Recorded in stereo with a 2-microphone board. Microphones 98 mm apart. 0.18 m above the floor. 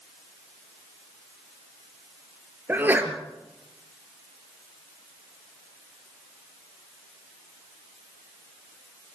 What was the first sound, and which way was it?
A sneeze, 20° right (ahead or behind).